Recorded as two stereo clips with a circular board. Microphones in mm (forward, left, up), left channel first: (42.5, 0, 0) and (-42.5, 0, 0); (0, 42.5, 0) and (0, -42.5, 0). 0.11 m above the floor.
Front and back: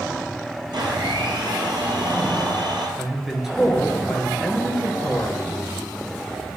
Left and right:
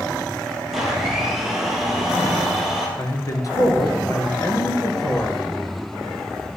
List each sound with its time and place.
0.7 s a blender: 175° right, 2.5 m
3.0 s a man speaking: 95° left, 1.5 m